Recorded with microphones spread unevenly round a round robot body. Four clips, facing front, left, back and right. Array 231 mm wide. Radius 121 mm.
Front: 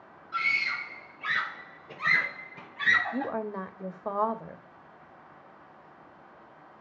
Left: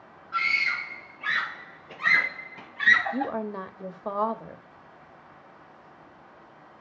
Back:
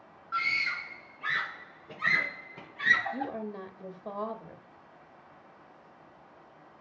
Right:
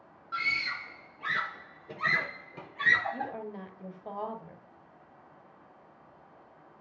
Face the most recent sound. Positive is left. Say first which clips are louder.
# left 7 dB, front 4 dB
turn(degrees=60)